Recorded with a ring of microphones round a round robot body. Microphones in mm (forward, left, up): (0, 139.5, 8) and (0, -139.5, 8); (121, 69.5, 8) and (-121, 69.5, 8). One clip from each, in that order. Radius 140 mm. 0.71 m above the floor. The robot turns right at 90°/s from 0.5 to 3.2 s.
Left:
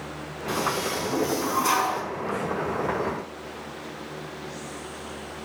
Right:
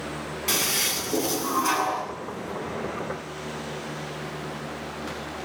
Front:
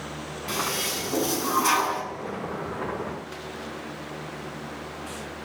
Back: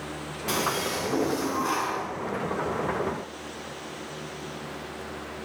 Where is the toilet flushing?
100° right, 7.5 m; by 2.0 s 40° left, 7.5 m.